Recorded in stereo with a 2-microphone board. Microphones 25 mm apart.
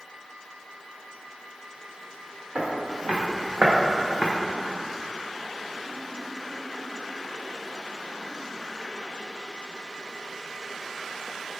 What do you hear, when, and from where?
2.5 s footsteps: 60° right (ahead or behind), 1.2 m